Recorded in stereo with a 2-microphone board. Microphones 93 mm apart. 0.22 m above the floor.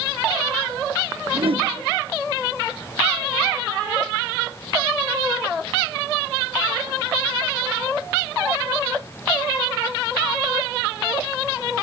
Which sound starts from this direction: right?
A whoosh, at 1.3 s.